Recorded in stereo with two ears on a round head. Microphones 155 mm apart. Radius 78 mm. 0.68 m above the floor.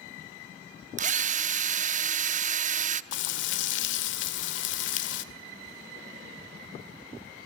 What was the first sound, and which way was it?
A drill, 45° right (ahead or behind).